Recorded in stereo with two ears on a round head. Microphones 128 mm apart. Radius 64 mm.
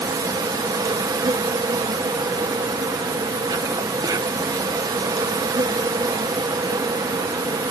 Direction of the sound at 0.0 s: 25° right (ahead or behind).